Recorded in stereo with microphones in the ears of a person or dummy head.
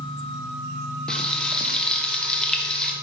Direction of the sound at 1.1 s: 10° left (ahead or behind).